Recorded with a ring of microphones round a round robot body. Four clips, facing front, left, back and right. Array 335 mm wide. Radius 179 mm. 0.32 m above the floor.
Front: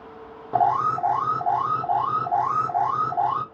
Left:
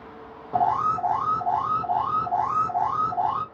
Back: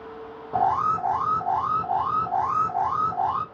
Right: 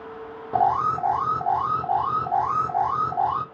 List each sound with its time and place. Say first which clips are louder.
0.5 s an alarm: right 1 dB, front 2 dB; 35° right, 1.8 m